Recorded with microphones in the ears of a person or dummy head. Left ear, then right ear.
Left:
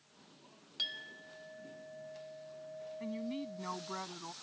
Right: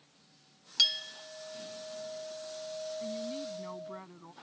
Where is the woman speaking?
25° left (ahead or behind).